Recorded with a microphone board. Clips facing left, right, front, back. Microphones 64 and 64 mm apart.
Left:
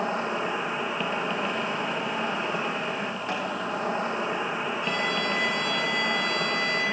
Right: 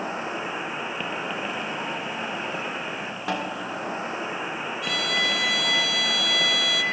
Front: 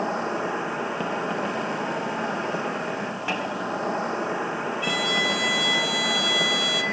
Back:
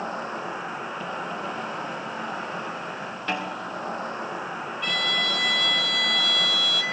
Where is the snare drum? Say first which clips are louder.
Right 4 dB, even; 80° right, 5.5 m.